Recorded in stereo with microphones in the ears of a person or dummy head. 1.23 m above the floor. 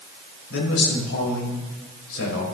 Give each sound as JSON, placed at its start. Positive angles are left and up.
{"t": 0.5, "sound": "a man speaking", "side_deg": 80, "distance_m": 5.5}